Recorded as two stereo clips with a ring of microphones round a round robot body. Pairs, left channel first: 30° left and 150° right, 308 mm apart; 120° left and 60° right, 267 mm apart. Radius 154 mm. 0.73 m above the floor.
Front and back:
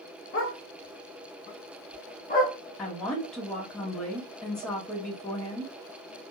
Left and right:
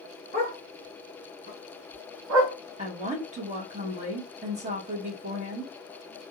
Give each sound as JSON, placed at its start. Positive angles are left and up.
{"t": 0.3, "sound": "a dog barking", "azimuth_deg": -5, "distance_m": 2.5}
{"t": 2.8, "sound": "a woman speaking", "azimuth_deg": -55, "distance_m": 1.1}